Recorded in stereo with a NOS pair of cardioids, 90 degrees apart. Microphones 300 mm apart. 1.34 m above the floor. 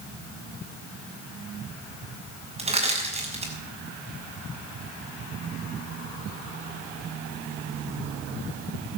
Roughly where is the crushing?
Ahead.